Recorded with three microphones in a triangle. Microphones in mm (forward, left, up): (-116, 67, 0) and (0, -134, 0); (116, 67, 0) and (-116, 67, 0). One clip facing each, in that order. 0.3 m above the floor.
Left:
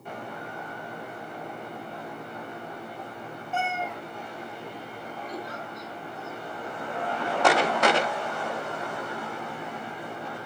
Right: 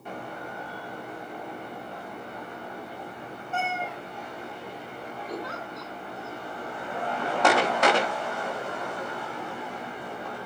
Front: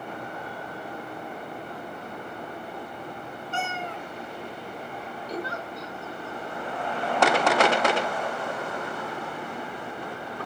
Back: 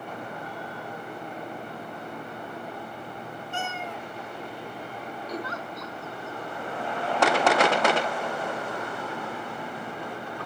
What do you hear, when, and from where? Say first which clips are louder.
3.5 s a cat meowing: left 1 dB, front 2 dB; 30° left, 1.4 m
5.3 s a giggle: right 4 dB, front 2 dB; 80° right, 2.5 m